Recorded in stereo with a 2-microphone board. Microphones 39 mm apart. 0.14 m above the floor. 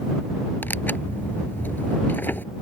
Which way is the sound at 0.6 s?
55° left (ahead or behind).